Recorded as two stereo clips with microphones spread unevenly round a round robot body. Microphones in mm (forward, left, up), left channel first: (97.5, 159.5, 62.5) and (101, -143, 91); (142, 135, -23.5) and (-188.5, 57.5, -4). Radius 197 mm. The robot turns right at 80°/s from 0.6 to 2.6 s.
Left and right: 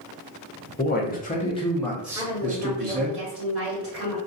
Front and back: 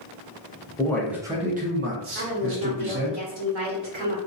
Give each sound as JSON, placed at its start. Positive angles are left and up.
{"t": 0.8, "sound": "a man speaking", "azimuth_deg": 75, "distance_m": 0.7}
{"t": 2.1, "sound": "a woman speaking", "azimuth_deg": 180, "distance_m": 1.4}